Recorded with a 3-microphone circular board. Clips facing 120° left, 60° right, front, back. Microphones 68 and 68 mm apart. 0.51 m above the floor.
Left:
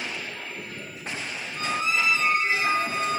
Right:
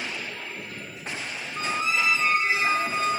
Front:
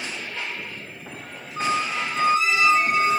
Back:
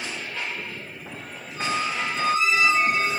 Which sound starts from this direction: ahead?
A squeak, at 1.6 s.